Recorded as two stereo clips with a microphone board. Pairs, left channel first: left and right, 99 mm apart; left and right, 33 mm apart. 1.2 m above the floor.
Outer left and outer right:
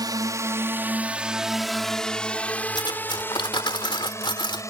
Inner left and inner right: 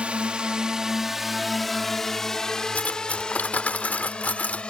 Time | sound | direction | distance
0.0 | a drone | 40° right (ahead or behind) | ?
2.8 | cutlery clinking | 55° left (ahead or behind) | ?